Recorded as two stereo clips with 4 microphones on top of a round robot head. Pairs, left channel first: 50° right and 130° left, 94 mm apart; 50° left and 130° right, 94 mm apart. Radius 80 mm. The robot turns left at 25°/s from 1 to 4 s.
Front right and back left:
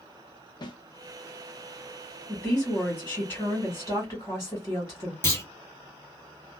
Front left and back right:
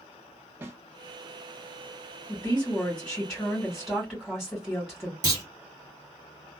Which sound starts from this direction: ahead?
A woman speaking, at 2.3 s.